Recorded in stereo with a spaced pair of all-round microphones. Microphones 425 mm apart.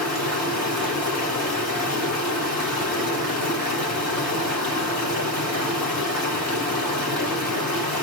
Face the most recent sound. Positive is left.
turn(degrees=55)  # may be behind; listen again after turning